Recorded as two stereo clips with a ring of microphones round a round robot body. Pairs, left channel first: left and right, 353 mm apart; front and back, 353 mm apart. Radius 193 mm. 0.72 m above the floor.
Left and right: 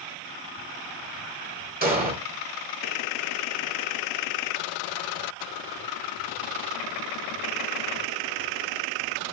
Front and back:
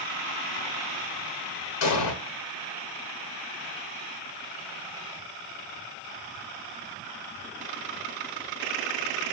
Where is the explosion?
25° right, 1.3 m.